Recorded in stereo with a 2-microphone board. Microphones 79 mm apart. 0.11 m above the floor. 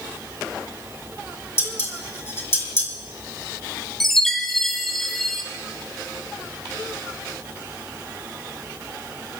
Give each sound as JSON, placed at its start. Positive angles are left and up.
{"t": 1.6, "sound": "dishes clattering", "side_deg": 30, "distance_m": 3.5}
{"t": 4.0, "sound": "a chime", "side_deg": 5, "distance_m": 4.0}